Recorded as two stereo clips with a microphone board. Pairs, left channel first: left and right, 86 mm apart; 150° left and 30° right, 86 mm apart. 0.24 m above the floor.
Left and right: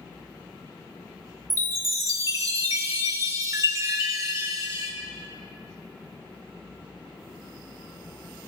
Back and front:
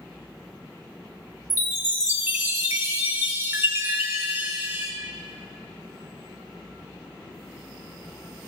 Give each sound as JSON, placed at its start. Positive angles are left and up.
{"t": 1.5, "sound": "a chime", "azimuth_deg": -85, "distance_m": 1.3}